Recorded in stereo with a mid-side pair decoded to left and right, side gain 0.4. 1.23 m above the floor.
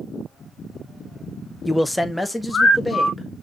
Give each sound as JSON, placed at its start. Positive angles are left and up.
{"t": 1.6, "sound": "a man speaking", "azimuth_deg": 15, "distance_m": 0.6}